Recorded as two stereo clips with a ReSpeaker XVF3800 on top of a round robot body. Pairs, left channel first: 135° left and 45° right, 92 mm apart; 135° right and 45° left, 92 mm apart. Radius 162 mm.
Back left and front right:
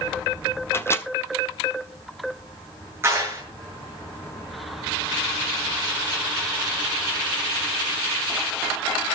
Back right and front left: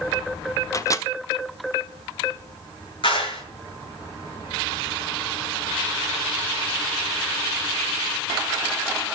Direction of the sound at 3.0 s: 110° right.